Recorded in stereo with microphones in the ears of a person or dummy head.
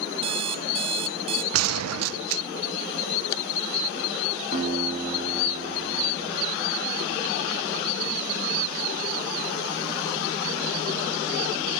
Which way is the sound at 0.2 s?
30° right (ahead or behind).